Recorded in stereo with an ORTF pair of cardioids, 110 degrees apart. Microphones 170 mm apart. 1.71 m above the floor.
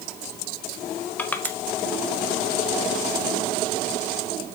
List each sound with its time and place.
1.2 s crushing: 10° left, 1.1 m